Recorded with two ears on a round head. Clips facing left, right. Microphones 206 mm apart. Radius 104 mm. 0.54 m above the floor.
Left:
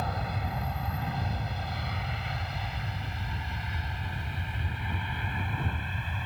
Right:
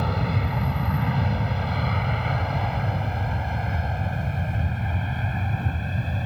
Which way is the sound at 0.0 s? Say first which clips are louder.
Right 8 dB; 60° right (ahead or behind).